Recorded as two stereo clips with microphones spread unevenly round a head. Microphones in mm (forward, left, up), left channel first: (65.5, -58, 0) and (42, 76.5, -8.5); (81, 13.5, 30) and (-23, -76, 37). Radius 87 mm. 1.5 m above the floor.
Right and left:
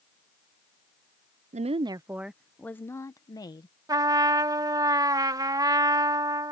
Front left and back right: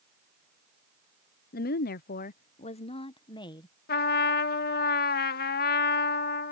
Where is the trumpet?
35° left.